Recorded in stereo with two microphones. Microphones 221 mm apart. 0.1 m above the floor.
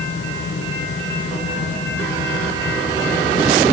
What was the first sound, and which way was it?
Only background noise.